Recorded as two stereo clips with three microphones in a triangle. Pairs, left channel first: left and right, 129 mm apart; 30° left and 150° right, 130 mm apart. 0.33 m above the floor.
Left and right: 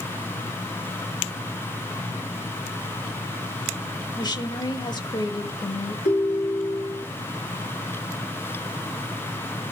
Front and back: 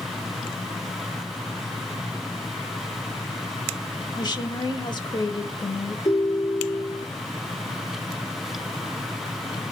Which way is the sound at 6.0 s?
85° left.